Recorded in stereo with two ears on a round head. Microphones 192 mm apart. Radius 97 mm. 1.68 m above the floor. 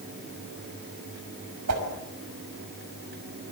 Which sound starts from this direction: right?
A whoosh, at 1.7 s.